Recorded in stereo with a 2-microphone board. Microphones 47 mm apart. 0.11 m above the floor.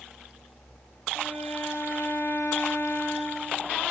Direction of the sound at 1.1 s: 40° left (ahead or behind).